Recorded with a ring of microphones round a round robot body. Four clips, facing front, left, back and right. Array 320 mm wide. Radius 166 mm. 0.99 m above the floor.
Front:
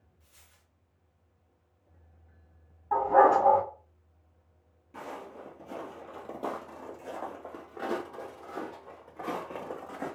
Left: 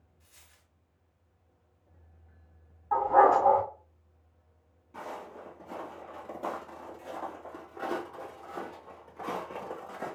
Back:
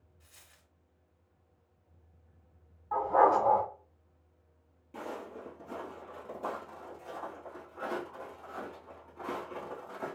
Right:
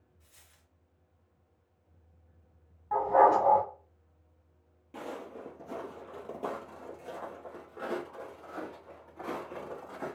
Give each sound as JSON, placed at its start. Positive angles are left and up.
{"t": 0.2, "sound": "a dropped coin", "azimuth_deg": 175, "distance_m": 1.2}
{"t": 2.9, "sound": "a dog barking", "azimuth_deg": -30, "distance_m": 2.0}
{"t": 4.9, "sound": "footsteps", "azimuth_deg": -95, "distance_m": 1.2}